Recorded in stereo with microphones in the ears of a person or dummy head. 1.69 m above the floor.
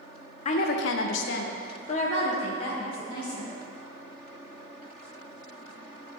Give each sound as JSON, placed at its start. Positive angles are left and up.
{"t": 0.5, "sound": "a woman speaking", "side_deg": 40, "distance_m": 0.7}